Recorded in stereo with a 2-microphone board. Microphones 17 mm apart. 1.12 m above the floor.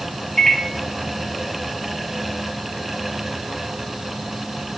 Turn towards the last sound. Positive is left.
turn(degrees=30)  # may be behind; listen again after turning